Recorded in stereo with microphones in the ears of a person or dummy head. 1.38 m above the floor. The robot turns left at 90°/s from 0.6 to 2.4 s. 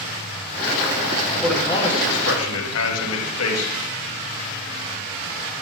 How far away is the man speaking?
About 1.3 m.